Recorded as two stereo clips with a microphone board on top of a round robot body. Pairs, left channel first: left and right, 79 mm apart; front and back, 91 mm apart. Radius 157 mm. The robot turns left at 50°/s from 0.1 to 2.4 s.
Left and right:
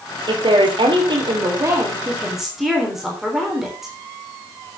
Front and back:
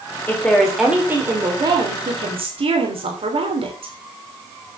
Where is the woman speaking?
70° right, 3.5 m; by 3.9 s 175° right, 3.5 m.